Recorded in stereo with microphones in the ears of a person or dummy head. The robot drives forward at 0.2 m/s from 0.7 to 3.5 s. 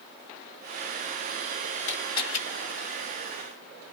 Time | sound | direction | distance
1.9 | a camera shutter | 85° left | 1.6 m